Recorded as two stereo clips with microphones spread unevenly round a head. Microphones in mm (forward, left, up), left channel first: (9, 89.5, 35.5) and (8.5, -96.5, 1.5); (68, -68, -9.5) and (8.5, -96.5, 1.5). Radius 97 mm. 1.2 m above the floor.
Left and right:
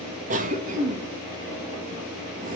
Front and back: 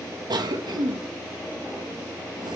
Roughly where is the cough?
Behind right.